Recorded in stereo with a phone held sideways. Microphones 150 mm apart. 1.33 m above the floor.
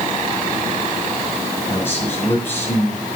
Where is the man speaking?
15° left (ahead or behind), 8 m.